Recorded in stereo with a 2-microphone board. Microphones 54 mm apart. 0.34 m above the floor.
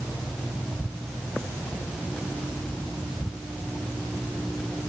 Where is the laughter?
I don't hear laughter.